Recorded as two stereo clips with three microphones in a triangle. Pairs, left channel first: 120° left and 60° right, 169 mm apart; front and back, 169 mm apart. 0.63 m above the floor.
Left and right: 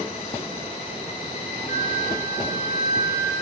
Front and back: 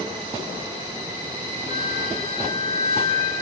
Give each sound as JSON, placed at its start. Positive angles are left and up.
{"t": 1.7, "sound": "a flute", "azimuth_deg": -15, "distance_m": 4.0}